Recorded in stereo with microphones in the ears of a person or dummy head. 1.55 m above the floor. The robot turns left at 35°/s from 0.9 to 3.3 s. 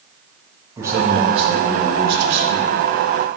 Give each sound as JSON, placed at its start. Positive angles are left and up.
{"t": 0.8, "sound": "a man speaking", "azimuth_deg": -20, "distance_m": 2.5}